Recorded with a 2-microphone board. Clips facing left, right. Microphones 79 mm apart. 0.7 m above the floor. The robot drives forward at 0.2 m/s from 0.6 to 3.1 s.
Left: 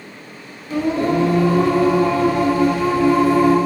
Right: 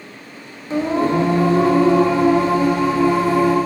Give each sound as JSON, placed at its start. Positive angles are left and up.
{"t": 0.7, "sound": "singing", "side_deg": -30, "distance_m": 0.7}